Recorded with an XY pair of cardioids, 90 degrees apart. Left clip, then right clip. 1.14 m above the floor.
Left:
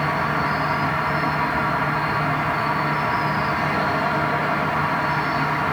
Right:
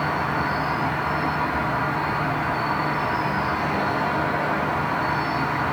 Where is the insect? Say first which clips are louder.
Left 2 dB; 60° left, 1.6 m.